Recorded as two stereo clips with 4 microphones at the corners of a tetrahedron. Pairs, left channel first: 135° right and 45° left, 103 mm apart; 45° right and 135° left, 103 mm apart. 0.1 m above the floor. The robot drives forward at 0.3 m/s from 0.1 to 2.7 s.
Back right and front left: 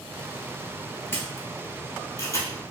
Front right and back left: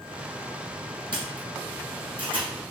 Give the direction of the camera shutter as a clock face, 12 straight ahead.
7 o'clock.